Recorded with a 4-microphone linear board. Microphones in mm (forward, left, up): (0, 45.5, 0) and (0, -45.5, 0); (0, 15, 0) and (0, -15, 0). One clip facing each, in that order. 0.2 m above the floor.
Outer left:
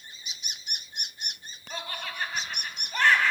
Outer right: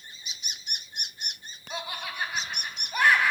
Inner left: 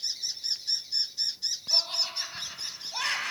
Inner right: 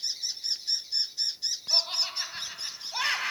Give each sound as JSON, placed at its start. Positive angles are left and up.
{"t": 1.7, "sound": "laughter", "side_deg": -10, "distance_m": 1.0}